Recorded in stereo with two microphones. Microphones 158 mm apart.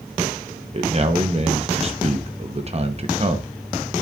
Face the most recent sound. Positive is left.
turn(degrees=-40)  # may be behind; listen again after turning